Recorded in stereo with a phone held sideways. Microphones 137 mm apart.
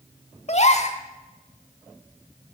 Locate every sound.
0.5 s a gasp: 55° left (ahead or behind), 1.4 m